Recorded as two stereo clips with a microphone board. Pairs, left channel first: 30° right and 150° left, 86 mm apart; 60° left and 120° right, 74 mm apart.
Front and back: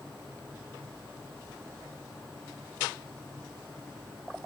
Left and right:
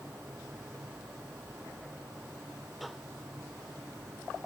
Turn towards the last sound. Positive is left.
No sound to turn to.